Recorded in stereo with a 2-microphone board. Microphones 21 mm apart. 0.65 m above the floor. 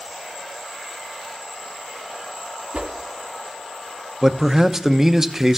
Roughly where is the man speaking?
Centre.